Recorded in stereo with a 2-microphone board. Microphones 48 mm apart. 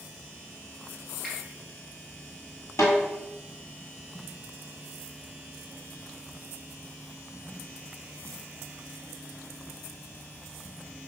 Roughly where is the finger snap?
Centre.